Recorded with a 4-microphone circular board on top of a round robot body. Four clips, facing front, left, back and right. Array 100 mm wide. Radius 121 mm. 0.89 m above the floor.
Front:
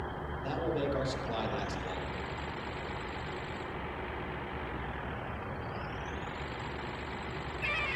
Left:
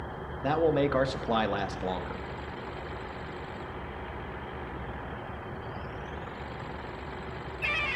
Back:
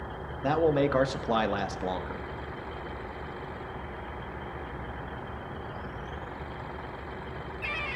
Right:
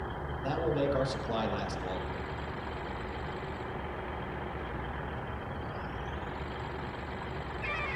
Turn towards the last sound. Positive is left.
turn(degrees=145)